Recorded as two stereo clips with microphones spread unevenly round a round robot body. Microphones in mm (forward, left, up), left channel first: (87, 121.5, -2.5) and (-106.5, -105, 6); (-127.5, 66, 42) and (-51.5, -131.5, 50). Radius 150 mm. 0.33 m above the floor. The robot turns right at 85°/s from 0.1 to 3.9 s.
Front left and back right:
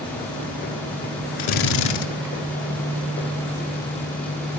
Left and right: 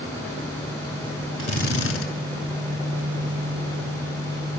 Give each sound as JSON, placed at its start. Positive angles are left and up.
{"t": 1.4, "sound": "a drill", "azimuth_deg": 35, "distance_m": 5.0}